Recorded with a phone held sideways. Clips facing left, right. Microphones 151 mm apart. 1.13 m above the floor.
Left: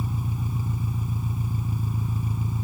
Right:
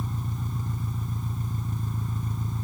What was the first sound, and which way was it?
An engine running, 10° left (ahead or behind).